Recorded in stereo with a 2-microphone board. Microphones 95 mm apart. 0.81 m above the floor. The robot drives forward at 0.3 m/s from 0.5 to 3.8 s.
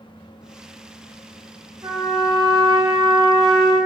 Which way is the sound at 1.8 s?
60° right (ahead or behind).